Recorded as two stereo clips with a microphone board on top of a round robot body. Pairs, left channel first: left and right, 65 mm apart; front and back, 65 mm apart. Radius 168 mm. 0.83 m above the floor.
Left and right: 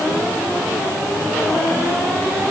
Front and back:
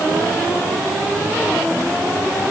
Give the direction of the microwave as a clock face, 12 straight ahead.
No microwave in this recording.